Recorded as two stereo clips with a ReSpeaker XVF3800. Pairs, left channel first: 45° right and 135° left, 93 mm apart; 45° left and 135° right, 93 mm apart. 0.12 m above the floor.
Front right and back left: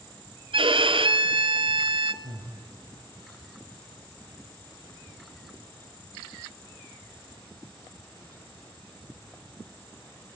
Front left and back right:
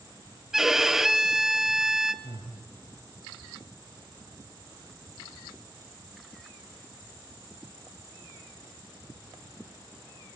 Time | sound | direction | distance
0.5 | a violin | 140° left | 0.9 m
2.2 | breathing | 110° left | 5.5 m